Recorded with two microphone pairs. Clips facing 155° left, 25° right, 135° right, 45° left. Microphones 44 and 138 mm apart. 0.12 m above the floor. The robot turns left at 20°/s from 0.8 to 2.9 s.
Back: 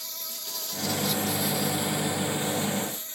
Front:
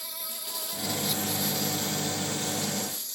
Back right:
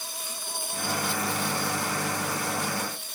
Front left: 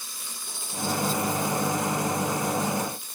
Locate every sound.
0.0 s an insect: 105° right; by 3.1 s 150° right